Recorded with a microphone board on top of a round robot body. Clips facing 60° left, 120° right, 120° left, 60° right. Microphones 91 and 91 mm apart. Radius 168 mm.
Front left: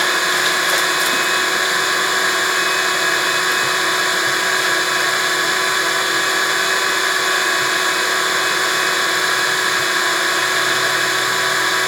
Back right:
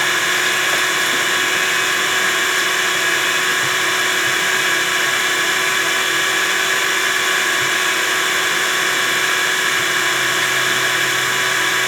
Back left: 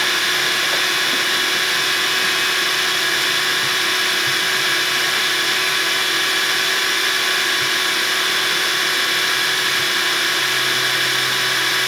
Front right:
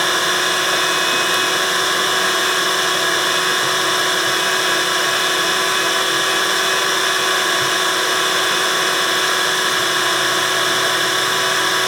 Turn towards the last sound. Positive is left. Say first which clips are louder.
# front left 1 dB, front right 3 dB
turn(degrees=-10)